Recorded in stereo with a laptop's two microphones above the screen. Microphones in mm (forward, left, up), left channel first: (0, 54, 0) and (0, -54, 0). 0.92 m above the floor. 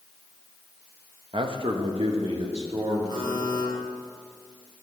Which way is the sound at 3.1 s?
45° right (ahead or behind).